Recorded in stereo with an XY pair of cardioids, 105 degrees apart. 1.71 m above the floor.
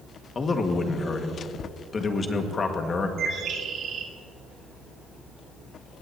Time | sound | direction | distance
0.3 | a man speaking | 35° left | 1.8 m
3.2 | a bird | 60° right | 1.9 m